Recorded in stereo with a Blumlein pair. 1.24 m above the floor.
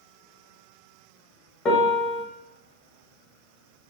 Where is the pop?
I don't hear a pop.